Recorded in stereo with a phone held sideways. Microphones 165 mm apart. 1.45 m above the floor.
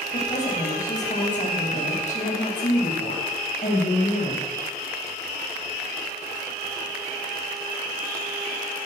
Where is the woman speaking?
50° left (ahead or behind), 9 m.